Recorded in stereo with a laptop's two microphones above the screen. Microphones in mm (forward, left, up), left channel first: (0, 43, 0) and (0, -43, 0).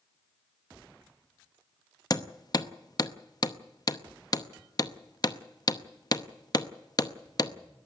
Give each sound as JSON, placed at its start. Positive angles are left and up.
{"t": 2.1, "sound": "hammering", "side_deg": 45, "distance_m": 0.8}